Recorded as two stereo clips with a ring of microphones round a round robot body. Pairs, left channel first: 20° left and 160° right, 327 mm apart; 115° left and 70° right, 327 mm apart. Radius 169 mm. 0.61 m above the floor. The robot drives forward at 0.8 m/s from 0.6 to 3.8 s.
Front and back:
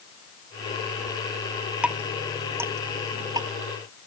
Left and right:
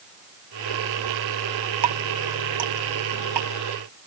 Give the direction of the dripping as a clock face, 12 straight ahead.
2 o'clock.